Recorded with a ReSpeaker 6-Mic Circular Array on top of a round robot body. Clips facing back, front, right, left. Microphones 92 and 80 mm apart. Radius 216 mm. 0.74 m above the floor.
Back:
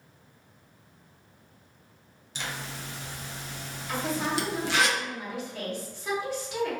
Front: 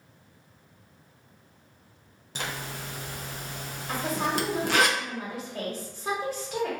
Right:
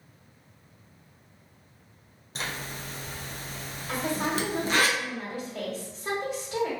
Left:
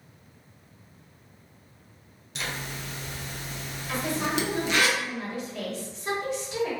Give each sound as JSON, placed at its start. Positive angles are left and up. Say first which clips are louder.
{"t": 2.4, "sound": "a zipper", "louder": "front 2 dB, left 1 dB", "azimuth_deg": -40, "distance_m": 0.5}
{"t": 3.9, "sound": "a woman speaking", "louder": "front 1 dB, even", "azimuth_deg": -45, "distance_m": 1.4}